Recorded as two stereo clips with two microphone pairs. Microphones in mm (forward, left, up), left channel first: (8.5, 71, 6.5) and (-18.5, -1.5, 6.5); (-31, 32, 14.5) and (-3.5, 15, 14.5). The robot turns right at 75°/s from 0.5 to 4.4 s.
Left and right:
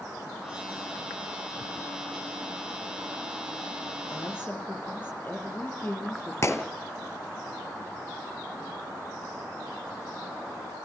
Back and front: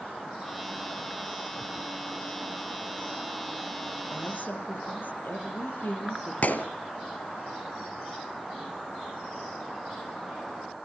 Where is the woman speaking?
115° left, 5.5 m; by 6.3 s 135° left, 5.5 m.